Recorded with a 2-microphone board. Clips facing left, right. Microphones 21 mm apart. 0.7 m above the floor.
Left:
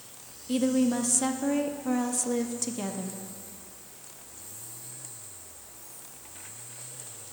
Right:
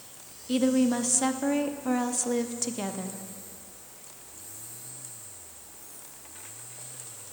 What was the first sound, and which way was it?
A woman speaking, 15° right (ahead or behind).